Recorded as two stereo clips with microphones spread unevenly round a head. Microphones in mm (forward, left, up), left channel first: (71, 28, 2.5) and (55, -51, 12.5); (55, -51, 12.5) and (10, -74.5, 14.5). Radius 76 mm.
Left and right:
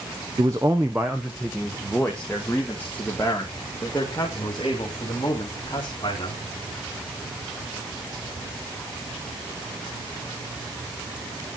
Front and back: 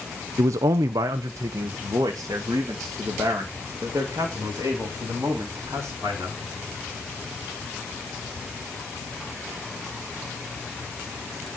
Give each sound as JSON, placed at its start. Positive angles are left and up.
{"t": 0.4, "sound": "a man speaking", "azimuth_deg": -160, "distance_m": 0.7}